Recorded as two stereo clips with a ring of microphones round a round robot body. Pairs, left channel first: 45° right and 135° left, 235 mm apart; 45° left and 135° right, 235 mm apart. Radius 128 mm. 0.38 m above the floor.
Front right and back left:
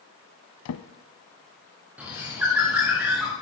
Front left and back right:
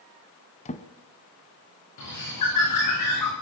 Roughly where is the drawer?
Ahead.